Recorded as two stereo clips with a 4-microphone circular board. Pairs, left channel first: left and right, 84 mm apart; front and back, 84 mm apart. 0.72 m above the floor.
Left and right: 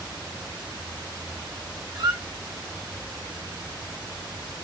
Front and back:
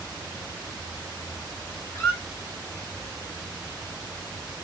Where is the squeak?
60° right, 2 m.